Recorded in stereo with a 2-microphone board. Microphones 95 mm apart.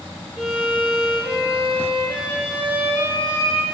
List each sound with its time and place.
0.4 s a violin: 25° right (ahead or behind), 3.5 m